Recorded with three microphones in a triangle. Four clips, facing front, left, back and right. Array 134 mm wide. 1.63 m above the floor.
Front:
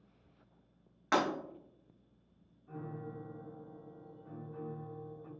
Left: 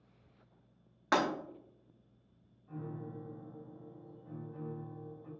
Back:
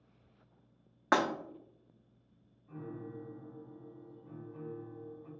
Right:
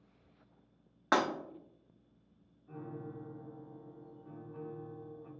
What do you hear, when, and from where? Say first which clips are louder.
1.1 s breaking glass: right 1 dB, back 2 dB; 150° right, 1.0 m
2.7 s a piano: left 1 dB, even; straight ahead, 1.9 m